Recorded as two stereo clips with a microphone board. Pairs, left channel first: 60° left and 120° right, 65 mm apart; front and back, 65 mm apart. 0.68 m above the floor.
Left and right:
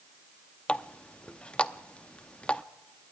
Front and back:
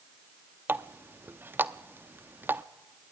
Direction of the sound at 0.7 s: 130° left.